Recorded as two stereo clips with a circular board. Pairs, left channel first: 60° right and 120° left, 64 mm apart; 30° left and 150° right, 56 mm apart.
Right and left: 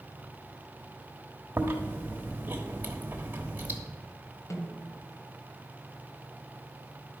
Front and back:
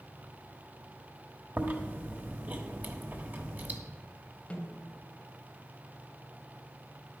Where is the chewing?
170° left, 1.2 m.